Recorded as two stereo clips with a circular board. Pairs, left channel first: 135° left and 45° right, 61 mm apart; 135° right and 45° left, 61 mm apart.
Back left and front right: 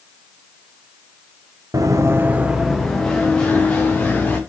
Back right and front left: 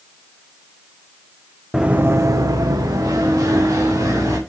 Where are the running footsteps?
35° right, 0.5 m; by 4.4 s 70° left, 1.9 m.